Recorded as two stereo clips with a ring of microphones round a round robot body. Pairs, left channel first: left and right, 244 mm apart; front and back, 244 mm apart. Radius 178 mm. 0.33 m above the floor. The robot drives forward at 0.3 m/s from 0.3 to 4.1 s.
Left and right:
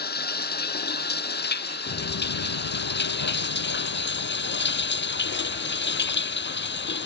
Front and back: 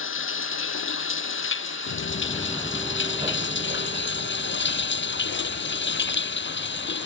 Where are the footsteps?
40° left; by 7.0 s 125° left.